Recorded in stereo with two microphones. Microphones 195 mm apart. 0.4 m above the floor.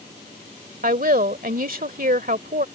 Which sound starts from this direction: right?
A woman speaking, at 0.8 s.